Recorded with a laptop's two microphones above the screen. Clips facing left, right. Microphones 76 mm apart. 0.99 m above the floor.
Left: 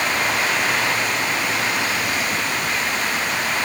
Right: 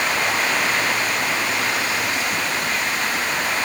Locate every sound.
Only background noise.